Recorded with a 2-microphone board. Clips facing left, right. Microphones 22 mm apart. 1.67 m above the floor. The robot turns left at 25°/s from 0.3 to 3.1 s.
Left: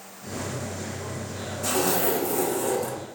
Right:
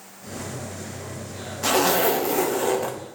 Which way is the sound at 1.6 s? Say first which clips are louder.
Right 5 dB; 110° right.